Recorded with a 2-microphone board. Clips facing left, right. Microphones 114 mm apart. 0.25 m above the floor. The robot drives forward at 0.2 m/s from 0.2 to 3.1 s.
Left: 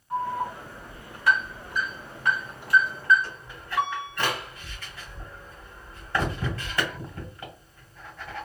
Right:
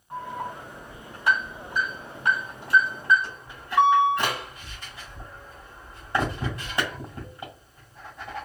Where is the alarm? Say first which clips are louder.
Left 5 dB; 20° right (ahead or behind), 2.5 m.